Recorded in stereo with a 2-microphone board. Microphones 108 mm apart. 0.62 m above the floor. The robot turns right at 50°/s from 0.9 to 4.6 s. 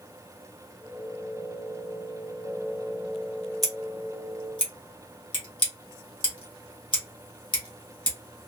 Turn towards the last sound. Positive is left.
turn(degrees=45)  # may be behind; listen again after turning